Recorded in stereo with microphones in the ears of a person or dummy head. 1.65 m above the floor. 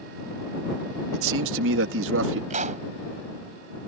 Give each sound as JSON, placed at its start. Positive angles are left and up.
{"t": 1.1, "sound": "a man speaking", "side_deg": -75}
{"t": 2.5, "sound": "a pop", "side_deg": -40}